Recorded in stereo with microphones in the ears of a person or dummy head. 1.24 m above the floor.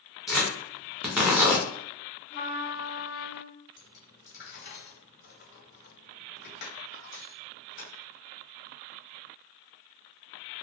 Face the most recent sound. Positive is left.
turn(degrees=55)  # may be behind; listen again after turning